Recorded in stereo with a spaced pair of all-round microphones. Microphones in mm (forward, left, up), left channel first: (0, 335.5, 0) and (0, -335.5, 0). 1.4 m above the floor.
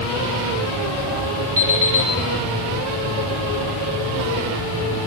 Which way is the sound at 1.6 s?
40° right (ahead or behind).